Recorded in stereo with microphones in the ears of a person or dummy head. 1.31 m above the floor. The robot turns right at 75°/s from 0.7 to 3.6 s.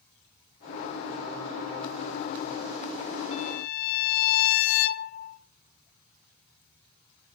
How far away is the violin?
About 0.9 m.